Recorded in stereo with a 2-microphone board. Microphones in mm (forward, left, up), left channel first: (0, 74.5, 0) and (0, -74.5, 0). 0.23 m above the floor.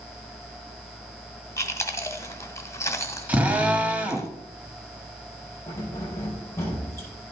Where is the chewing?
20° left (ahead or behind), 0.9 m.